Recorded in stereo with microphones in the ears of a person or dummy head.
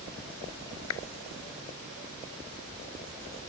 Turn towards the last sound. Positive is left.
turn(degrees=85)